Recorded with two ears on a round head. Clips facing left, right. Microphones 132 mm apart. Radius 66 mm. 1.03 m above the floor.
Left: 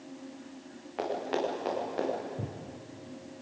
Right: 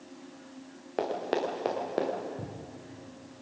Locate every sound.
1.0 s running footsteps: 50° right (ahead or behind), 5.5 m; by 2.1 s 55° right (ahead or behind), 6 m
2.4 s footsteps: 15° left (ahead or behind), 2 m